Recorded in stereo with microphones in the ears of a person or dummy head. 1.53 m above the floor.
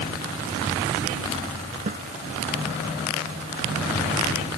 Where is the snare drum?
35° right (ahead or behind).